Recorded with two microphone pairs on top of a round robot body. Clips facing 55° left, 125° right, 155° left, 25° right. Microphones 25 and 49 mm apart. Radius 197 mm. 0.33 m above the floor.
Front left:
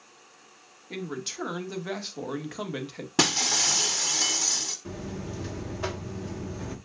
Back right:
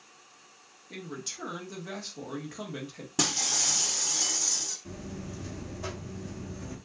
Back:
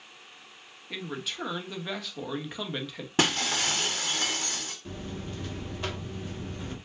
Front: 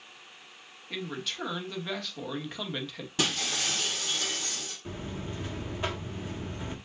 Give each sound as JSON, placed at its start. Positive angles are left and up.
{"t": 0.9, "sound": "a man speaking", "azimuth_deg": 55, "distance_m": 1.5}
{"t": 3.2, "sound": "breaking glass", "azimuth_deg": 105, "distance_m": 1.0}
{"t": 4.8, "sound": "a buzzer", "azimuth_deg": 35, "distance_m": 1.5}